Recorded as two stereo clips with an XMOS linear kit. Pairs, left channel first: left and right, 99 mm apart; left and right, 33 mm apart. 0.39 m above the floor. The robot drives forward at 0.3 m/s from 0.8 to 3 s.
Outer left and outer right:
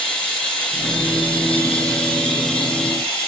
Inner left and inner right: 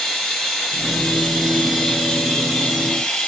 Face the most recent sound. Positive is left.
turn(degrees=5)  # may be behind; listen again after turning